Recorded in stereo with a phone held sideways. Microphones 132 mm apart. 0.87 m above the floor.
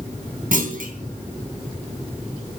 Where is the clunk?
80° right, 3.5 m.